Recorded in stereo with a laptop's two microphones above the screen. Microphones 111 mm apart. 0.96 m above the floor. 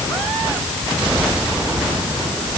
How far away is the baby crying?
I don't hear a baby crying.